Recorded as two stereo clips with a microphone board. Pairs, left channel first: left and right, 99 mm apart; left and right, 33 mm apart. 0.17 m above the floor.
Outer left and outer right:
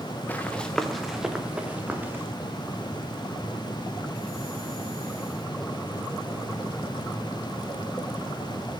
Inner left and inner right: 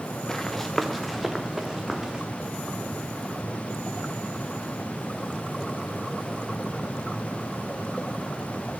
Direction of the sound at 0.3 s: 20° left (ahead or behind).